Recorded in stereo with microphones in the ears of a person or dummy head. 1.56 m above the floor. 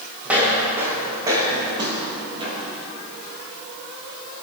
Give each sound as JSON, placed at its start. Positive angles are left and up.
{"t": 0.2, "sound": "footsteps", "side_deg": -10, "distance_m": 4.5}